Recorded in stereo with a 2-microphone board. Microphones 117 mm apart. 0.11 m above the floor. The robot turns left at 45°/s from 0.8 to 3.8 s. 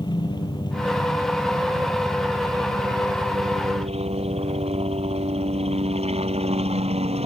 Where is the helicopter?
45° left; by 7.3 s 90° right.